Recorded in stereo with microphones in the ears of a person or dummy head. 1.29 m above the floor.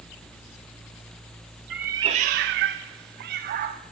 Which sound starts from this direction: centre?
A cat meowing, at 1.7 s.